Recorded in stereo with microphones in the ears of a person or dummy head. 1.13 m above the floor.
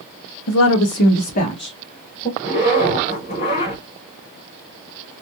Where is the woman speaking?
75° left (ahead or behind), 0.8 m; by 2.3 s 10° left (ahead or behind), 1.7 m.